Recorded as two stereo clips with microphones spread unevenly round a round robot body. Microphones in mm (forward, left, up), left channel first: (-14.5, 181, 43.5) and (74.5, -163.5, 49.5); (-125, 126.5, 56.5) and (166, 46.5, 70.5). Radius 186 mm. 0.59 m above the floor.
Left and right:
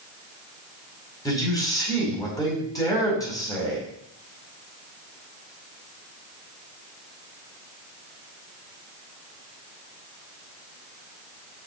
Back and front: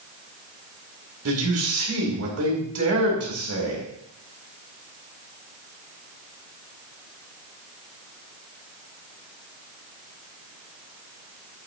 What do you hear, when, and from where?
1.2 s a man speaking: 25° left, 4.5 m